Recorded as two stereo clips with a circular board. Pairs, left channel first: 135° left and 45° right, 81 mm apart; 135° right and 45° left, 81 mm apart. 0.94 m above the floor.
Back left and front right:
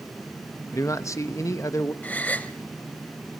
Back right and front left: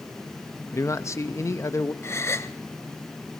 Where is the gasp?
165° right, 0.9 m.